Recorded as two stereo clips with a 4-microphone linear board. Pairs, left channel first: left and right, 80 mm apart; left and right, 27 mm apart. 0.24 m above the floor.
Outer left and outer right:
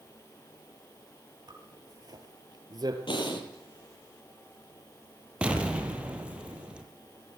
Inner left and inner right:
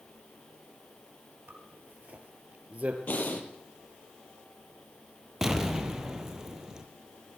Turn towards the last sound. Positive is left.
turn(degrees=-15)  # may be behind; listen again after turning